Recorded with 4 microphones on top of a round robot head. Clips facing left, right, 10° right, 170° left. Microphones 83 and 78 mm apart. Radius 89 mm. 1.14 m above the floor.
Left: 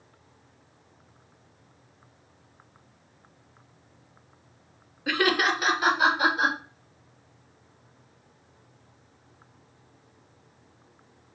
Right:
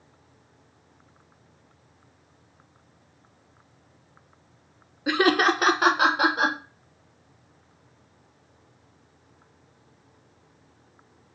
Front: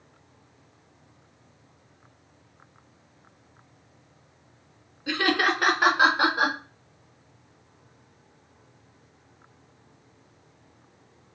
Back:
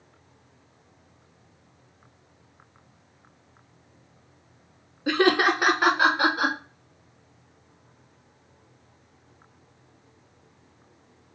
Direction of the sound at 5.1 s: 160° right.